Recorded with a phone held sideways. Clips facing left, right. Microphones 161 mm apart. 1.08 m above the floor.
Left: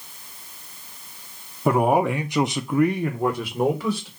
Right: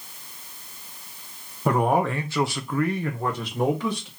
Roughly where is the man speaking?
Centre.